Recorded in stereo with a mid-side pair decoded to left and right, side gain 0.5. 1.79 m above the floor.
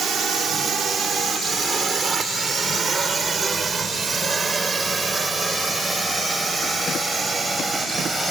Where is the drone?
55° right; by 8.3 s 25° right.